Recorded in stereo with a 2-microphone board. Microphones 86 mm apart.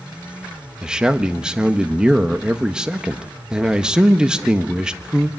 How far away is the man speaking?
About 1.2 m.